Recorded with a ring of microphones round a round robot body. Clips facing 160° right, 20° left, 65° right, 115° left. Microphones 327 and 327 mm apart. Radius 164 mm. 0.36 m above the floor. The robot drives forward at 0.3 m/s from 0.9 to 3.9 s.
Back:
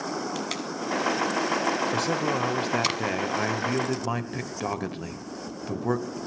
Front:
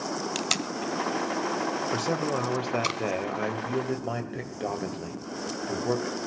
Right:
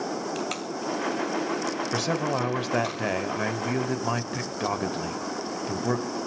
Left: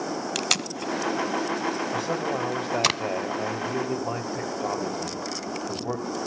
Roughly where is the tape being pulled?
Left.